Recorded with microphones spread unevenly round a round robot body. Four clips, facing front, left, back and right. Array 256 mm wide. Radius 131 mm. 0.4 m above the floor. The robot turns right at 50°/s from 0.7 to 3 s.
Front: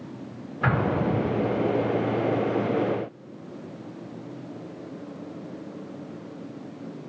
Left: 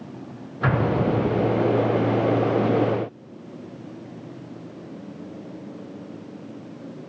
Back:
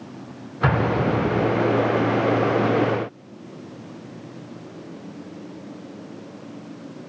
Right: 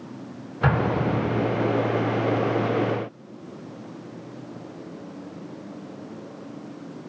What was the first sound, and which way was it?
An explosion, 125° right.